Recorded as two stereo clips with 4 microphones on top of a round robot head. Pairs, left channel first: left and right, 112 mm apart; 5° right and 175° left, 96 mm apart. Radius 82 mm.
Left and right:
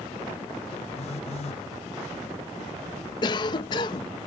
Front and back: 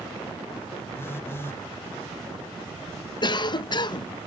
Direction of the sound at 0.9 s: 50° left.